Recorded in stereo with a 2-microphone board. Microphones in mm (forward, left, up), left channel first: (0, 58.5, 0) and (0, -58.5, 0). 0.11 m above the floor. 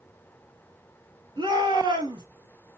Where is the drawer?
I don't hear a drawer.